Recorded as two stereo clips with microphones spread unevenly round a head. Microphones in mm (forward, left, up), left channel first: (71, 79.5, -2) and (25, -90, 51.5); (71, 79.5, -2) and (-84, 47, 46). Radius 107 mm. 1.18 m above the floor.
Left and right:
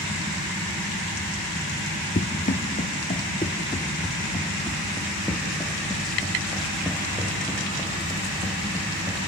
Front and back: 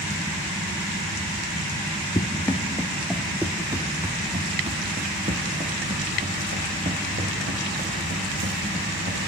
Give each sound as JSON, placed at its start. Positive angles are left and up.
{"t": 2.1, "sound": "running footsteps", "azimuth_deg": 90, "distance_m": 1.2}